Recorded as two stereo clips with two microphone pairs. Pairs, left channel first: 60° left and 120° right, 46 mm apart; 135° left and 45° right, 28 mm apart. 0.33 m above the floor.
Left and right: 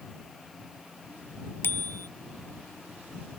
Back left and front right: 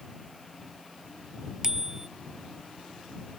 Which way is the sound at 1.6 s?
25° left.